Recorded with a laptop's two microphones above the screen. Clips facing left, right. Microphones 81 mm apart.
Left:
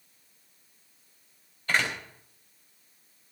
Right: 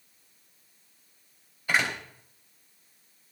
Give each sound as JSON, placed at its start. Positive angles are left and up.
{"t": 1.7, "sound": "a door slam", "side_deg": -10, "distance_m": 4.0}